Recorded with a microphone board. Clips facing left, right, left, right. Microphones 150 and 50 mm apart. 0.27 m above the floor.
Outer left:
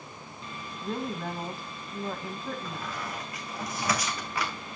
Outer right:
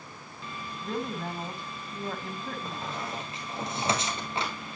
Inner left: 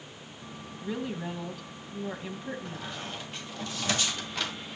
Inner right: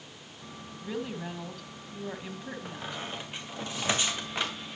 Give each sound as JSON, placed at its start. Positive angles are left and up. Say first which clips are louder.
{"t": 0.8, "sound": "a woman speaking", "louder": "even, inner left 2 dB", "side_deg": 0, "distance_m": 1.7}
{"t": 2.6, "sound": "a squeak", "louder": "outer right 1 dB, inner right 1 dB", "side_deg": -25, "distance_m": 2.5}